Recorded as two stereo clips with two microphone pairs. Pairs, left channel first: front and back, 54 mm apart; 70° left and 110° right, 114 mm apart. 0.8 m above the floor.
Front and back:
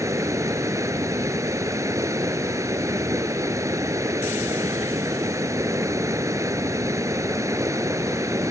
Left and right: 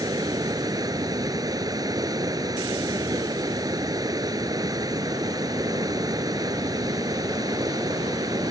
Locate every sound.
0.0 s running water: 165° right